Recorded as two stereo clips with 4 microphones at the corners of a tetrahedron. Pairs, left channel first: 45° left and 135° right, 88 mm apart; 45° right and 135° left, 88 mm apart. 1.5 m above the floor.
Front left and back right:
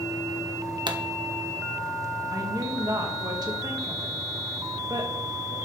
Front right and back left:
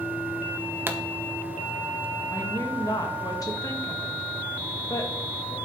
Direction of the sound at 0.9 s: 160° right.